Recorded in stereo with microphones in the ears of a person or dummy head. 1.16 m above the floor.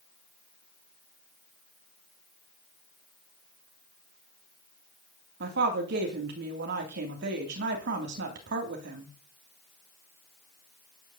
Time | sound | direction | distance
5.4 | a woman speaking | 60° right (ahead or behind) | 3 m